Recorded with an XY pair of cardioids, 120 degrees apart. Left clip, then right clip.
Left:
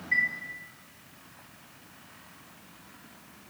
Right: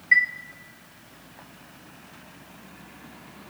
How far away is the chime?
About 0.5 m.